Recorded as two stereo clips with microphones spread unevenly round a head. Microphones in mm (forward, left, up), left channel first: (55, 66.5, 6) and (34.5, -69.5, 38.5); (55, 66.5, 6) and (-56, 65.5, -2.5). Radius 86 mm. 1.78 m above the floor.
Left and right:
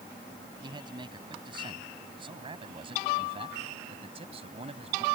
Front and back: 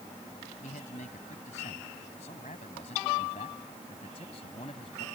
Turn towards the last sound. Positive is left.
turn(degrees=-60)